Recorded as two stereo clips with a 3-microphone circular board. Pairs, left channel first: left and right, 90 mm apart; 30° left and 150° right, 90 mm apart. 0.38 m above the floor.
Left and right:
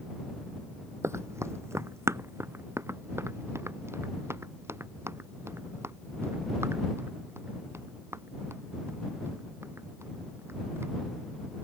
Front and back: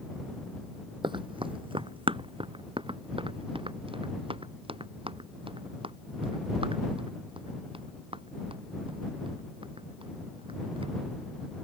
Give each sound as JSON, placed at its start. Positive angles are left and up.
{"t": 1.0, "sound": "running footsteps", "azimuth_deg": -145}